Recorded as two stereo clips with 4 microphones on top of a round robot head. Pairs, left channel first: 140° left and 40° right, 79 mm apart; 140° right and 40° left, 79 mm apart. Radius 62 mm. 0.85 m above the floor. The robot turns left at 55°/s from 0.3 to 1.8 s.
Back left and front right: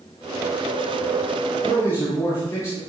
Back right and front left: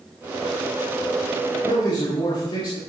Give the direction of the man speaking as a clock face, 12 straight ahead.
5 o'clock.